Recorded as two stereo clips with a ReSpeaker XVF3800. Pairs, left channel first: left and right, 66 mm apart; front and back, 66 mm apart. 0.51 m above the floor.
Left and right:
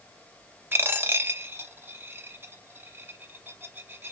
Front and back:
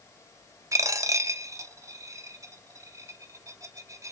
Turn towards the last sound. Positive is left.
turn(degrees=-145)